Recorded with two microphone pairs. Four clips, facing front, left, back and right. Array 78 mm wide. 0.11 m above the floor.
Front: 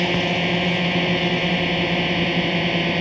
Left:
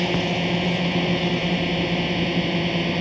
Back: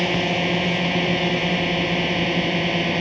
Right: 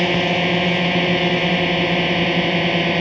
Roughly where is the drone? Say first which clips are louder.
Right 5 dB, even; right.